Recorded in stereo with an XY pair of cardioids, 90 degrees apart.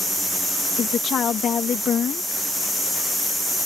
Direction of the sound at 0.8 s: 65° left.